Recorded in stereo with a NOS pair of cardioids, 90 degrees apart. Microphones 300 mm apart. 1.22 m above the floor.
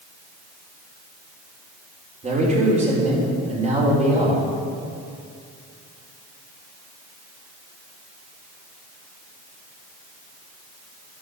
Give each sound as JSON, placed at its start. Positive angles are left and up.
{"t": 2.2, "sound": "a man speaking", "azimuth_deg": -25, "distance_m": 3.5}